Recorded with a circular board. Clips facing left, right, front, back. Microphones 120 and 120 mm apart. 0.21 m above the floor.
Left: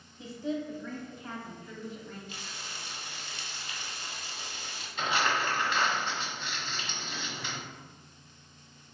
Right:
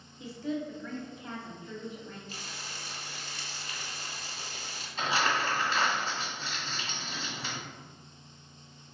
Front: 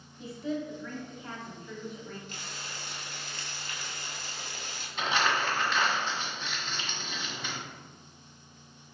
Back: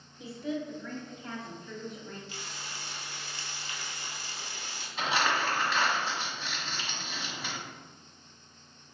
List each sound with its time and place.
0.2 s a woman speaking: 105° left, 1.2 m; by 2.2 s 75° right, 1.3 m
2.3 s frying: 40° right, 1.1 m
5.0 s crumpling: 95° right, 1.6 m